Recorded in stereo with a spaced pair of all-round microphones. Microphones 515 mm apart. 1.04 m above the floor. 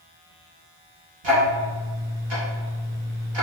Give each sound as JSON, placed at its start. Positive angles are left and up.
{"t": 1.2, "sound": "ticking", "side_deg": -60, "distance_m": 1.0}